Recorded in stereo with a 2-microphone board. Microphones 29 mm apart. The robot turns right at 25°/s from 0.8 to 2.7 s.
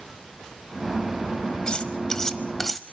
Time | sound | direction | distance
1.7 | cutlery clinking | 35° left (ahead or behind) | 1.0 m